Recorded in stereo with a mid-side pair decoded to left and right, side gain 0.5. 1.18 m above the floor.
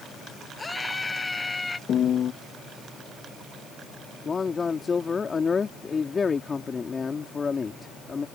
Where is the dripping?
I don't hear dripping.